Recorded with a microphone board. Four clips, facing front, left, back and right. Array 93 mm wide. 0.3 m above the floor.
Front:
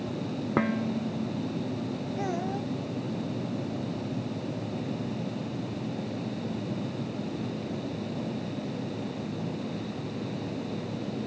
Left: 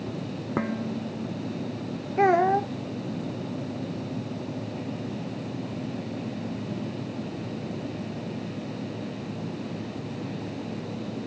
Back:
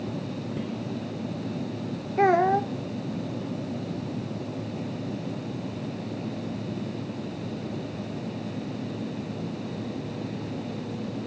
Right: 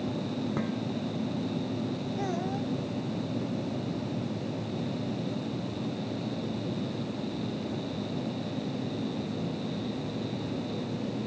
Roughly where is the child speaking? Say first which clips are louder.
Left 15 dB, back 14 dB; behind left.